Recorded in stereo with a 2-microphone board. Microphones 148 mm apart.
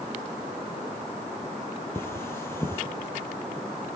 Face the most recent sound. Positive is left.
turn(degrees=15)  # may be behind; listen again after turning